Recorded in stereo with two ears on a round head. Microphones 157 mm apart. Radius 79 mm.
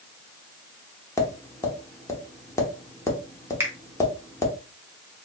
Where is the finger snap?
15° right (ahead or behind), 0.9 m.